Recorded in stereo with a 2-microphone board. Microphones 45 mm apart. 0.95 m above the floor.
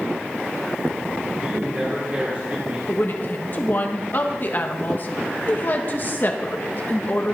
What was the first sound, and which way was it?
A man speaking, 35° right (ahead or behind).